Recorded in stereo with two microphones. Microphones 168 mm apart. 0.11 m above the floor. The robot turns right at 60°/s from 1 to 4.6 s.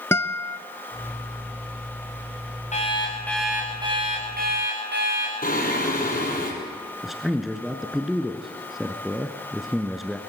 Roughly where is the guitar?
Centre.